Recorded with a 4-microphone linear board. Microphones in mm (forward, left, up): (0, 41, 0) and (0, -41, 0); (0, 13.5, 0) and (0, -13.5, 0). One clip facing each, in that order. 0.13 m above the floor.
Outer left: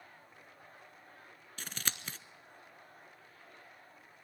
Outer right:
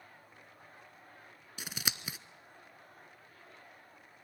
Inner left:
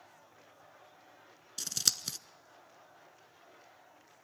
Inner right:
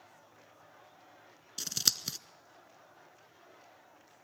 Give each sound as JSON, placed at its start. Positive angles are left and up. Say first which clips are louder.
{"t": 1.6, "sound": "scissors", "louder": "outer right 2 dB, inner right 1 dB", "side_deg": -10, "distance_m": 0.8}